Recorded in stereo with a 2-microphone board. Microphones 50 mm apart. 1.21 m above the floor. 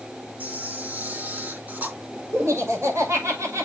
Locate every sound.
0.4 s a camera shutter: 35° right (ahead or behind), 2.5 m
2.3 s laughter: 70° right (ahead or behind), 6.5 m